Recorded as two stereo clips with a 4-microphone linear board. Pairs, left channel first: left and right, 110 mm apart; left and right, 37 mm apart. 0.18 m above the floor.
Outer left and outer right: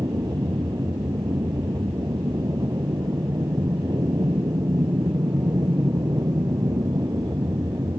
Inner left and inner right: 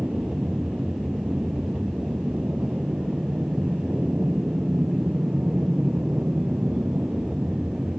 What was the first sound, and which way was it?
An aircraft, 35° right (ahead or behind).